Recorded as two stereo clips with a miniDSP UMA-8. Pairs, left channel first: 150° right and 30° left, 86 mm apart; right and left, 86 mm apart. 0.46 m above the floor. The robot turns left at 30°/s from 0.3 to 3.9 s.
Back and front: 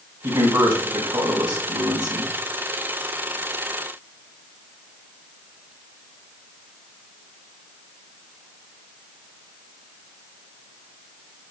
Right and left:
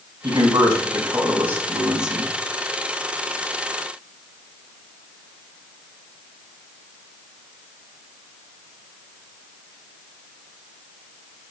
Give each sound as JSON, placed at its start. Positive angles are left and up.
{"t": 0.2, "sound": "a man speaking", "azimuth_deg": 60, "distance_m": 4.0}